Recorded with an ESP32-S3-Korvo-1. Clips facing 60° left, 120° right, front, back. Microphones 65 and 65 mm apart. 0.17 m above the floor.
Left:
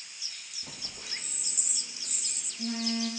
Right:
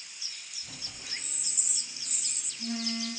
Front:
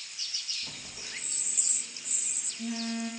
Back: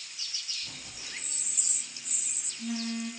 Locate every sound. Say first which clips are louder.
0.6 s a phone buzzing: left 2 dB, front 1 dB; 70° left, 1.9 m